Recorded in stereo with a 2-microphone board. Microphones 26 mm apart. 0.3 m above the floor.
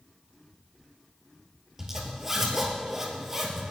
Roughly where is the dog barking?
No dog barking in this recording.